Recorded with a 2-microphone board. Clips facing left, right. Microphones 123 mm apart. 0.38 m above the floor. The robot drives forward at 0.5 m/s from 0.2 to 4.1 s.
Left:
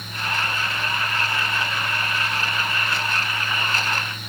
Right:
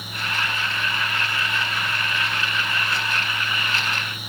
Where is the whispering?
No whispering in this recording.